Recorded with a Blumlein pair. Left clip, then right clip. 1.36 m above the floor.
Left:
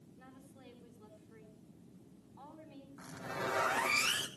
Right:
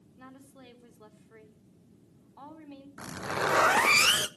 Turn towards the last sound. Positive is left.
turn(degrees=-30)